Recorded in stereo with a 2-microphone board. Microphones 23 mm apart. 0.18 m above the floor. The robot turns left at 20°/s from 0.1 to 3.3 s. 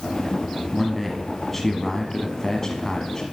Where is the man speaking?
175° left, 1.2 m; by 3.2 s 125° left, 1.2 m.